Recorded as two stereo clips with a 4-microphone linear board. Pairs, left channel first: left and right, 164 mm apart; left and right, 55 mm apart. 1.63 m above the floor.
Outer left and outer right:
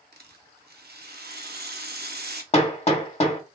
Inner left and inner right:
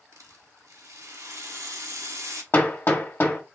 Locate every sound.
0.1 s a rattle: 75° right (ahead or behind), 0.7 m
2.5 s hammering: 40° left (ahead or behind), 1.0 m